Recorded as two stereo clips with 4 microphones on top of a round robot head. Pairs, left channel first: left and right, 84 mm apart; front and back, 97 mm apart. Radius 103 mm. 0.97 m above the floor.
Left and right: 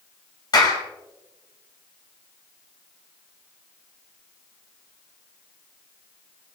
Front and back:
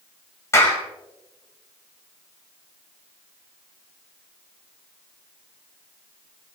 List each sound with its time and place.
0.5 s a clap: 60° left, 5.5 m